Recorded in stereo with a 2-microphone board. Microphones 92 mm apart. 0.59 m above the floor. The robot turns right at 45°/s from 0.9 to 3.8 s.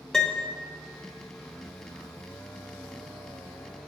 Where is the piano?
5° left (ahead or behind), 0.6 m.